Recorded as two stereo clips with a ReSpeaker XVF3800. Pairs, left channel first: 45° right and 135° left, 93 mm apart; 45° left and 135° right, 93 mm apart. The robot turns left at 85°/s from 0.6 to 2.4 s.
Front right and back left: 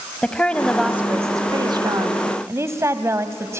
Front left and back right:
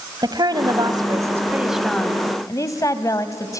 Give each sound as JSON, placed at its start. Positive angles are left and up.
{"t": 0.2, "sound": "a woman speaking", "azimuth_deg": -120, "distance_m": 1.4}